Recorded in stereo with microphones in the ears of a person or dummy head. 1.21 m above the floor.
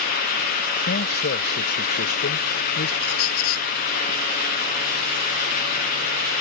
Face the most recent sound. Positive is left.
turn(degrees=80)